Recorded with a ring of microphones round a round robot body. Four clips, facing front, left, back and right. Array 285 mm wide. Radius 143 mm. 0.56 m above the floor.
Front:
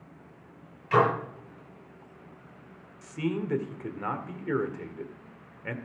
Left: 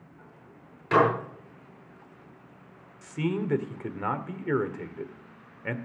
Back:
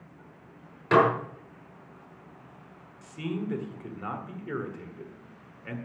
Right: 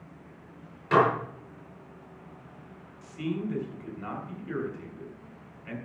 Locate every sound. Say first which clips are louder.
0.9 s dishes clattering: even, back 2 dB; 175° left, 7.5 m
3.0 s a man speaking: left 3 dB, front 3 dB; 70° left, 1.7 m